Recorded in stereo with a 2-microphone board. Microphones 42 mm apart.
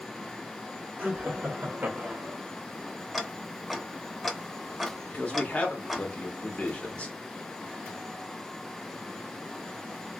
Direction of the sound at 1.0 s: 50° right (ahead or behind).